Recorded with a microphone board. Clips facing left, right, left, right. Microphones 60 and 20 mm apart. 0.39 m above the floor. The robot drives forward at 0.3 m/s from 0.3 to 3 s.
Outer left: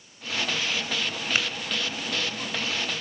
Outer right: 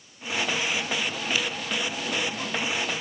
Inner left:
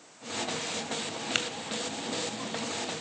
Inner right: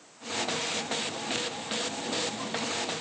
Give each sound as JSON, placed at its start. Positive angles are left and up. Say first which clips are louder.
{"t": 1.4, "sound": "tapping", "louder": "outer left 2 dB, inner left 5 dB", "side_deg": 50, "distance_m": 1.9}